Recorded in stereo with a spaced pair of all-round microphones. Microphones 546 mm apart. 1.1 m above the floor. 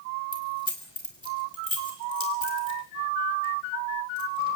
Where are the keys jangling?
55° left (ahead or behind), 4 m.